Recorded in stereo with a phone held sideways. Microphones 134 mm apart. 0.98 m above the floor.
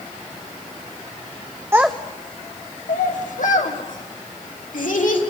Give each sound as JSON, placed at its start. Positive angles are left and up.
{"t": 1.7, "sound": "a child speaking", "side_deg": -20, "distance_m": 0.5}